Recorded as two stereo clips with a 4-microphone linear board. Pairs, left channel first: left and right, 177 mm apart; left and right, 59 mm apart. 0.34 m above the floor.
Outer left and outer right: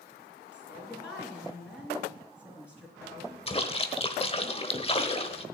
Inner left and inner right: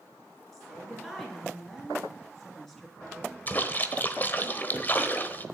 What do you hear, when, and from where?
0.5 s a woman speaking: 10° left (ahead or behind), 3 m
3.5 s a splash: 35° left (ahead or behind), 1.1 m